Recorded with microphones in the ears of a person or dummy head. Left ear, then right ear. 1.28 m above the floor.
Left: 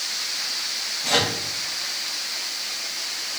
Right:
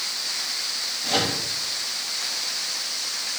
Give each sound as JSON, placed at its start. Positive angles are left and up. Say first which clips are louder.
{"t": 1.0, "sound": "a microwave", "louder": "left 2 dB", "side_deg": 30, "distance_m": 2.0}